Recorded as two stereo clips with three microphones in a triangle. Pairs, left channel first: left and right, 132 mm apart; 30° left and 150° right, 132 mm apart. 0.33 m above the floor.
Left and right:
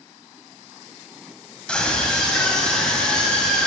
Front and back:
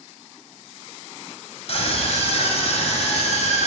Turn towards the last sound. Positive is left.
turn(degrees=5)